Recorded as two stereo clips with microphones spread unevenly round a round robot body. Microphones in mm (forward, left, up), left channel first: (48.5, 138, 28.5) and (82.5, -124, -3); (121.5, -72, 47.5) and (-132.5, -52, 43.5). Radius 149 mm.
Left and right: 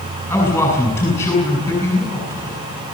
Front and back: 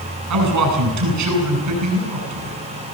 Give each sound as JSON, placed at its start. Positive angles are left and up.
{"t": 0.3, "sound": "a man speaking", "azimuth_deg": 180, "distance_m": 7.5}